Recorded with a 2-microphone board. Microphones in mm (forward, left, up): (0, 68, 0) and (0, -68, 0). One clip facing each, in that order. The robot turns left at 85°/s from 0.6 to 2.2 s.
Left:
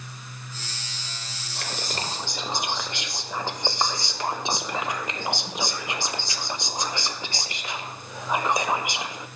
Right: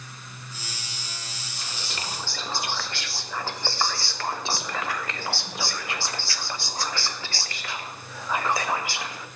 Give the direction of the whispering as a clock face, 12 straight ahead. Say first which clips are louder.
Left 6 dB; 10 o'clock.